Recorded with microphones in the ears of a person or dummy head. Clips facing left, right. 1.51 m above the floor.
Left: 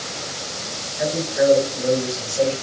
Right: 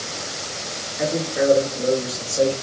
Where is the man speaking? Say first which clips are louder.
Left 2 dB; 80° right, 1.3 m; by 2.5 s 30° right (ahead or behind), 1.3 m.